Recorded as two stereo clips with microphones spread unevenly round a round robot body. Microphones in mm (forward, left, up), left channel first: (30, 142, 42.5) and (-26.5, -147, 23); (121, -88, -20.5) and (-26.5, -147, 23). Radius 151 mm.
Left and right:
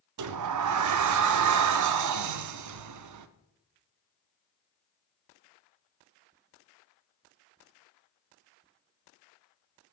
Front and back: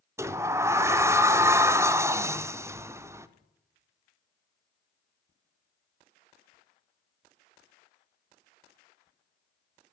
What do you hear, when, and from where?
0.2 s a sliding door: 80° right, 0.6 m